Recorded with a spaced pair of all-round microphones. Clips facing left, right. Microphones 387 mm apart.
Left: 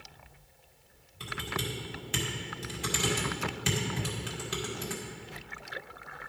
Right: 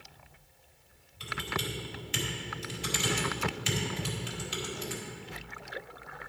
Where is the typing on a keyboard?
65° left (ahead or behind), 1.9 m.